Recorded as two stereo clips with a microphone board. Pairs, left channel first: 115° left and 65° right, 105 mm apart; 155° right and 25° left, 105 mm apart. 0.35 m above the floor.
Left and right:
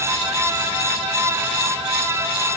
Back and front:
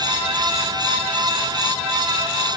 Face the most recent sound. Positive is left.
No sound to turn to.